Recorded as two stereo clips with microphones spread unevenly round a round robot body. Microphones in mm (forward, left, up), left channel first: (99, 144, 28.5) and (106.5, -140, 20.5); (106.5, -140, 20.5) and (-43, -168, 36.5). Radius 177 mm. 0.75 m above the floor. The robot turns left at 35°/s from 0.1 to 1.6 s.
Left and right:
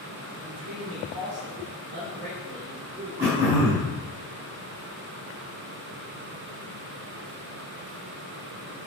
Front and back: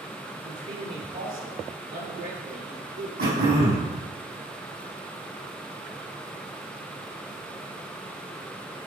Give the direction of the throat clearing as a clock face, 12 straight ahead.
5 o'clock.